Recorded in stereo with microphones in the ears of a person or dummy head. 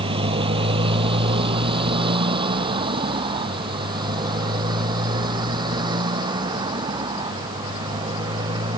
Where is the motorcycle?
30° right (ahead or behind); by 8.8 s 25° right (ahead or behind).